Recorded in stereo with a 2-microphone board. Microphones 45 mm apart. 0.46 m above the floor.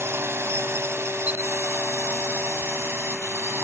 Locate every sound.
0.0 s a drone: 65° right (ahead or behind); by 3.6 s 70° right (ahead or behind)
1.3 s a camera shutter: 35° right (ahead or behind)